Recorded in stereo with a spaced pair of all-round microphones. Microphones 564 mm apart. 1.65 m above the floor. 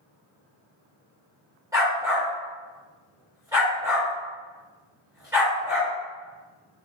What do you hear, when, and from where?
1.7 s a dog barking: 5° right (ahead or behind), 1.4 m